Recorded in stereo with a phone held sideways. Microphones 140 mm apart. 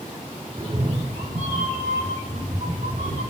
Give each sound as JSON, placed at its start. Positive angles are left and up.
{"t": 0.6, "sound": "a cat meowing", "side_deg": -35, "distance_m": 0.7}